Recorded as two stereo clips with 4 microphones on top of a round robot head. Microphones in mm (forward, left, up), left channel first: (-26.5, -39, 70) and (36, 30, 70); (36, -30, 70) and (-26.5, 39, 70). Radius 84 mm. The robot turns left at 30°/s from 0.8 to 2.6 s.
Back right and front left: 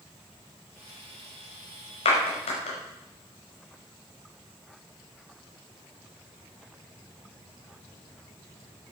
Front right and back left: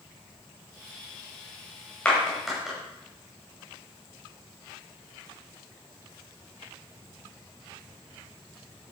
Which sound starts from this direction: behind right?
A clap, at 2.0 s.